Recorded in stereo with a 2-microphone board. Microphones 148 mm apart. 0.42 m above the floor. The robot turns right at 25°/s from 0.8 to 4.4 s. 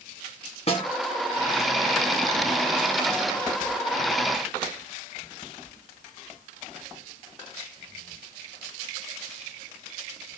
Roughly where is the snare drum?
Left.